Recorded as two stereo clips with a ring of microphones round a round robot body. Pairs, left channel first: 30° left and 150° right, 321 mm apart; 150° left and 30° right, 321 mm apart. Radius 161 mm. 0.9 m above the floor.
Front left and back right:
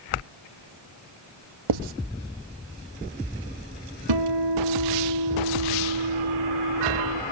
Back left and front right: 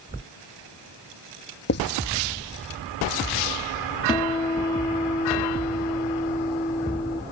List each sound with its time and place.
1.7 s writing: 155° right
4.1 s a guitar: 130° right